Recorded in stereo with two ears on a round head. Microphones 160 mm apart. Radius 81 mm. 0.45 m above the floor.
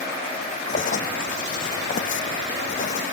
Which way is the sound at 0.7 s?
45° left (ahead or behind).